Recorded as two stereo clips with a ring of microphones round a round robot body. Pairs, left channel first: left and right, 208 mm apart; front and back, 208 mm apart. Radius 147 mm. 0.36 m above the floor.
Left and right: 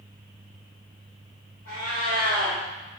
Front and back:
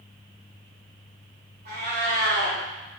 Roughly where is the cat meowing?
Behind left.